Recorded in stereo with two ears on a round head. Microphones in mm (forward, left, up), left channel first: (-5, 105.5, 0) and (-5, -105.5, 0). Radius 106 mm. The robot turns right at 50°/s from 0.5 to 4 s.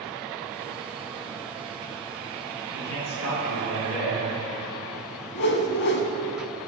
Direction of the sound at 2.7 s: 65° left.